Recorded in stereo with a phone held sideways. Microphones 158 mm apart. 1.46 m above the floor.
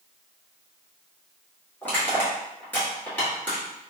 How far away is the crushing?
About 1.5 m.